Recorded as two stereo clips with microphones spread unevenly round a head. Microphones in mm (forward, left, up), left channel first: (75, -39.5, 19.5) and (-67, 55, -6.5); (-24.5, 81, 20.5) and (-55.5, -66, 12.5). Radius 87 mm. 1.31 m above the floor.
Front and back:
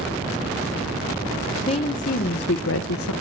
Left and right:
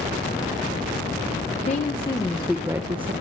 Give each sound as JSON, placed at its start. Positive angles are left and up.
{"t": 1.7, "sound": "a woman speaking", "azimuth_deg": 25, "distance_m": 0.9}